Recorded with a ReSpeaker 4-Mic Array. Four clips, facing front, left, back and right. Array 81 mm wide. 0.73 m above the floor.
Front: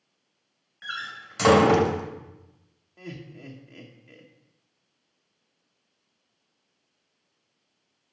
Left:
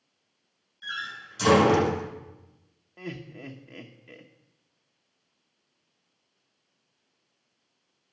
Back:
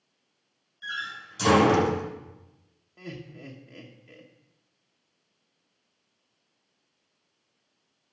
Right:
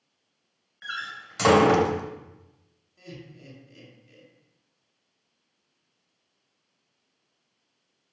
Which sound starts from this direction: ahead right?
A door slam, at 0.8 s.